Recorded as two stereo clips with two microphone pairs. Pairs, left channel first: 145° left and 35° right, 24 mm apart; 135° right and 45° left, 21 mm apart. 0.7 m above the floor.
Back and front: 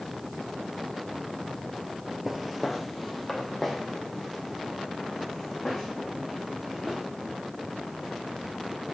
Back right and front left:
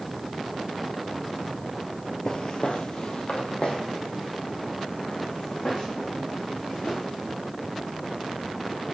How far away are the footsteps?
About 0.8 m.